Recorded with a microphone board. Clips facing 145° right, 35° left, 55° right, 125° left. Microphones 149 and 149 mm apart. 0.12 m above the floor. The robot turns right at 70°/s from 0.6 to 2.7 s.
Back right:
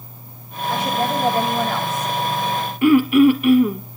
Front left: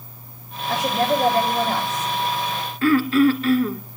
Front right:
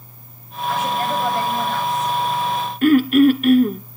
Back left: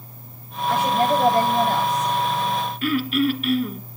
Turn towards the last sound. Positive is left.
turn(degrees=-75)